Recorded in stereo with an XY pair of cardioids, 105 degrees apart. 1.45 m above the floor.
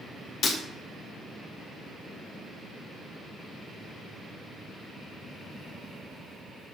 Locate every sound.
0.4 s breaking glass: 55° left, 1.8 m